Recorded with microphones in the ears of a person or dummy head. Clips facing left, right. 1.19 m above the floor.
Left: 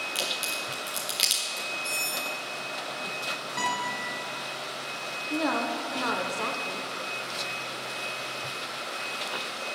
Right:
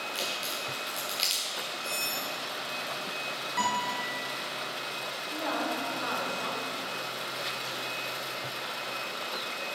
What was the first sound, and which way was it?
A crack, 25° left (ahead or behind).